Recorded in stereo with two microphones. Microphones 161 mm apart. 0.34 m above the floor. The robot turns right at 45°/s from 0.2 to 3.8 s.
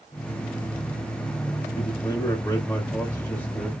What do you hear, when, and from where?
1.8 s a man speaking: 25° left (ahead or behind), 1.0 m; by 3.7 s 5° left (ahead or behind), 1.0 m